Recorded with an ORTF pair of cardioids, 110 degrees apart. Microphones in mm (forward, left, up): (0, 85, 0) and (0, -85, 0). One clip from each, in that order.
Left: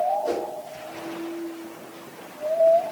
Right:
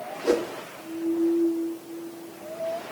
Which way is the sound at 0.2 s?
30° right.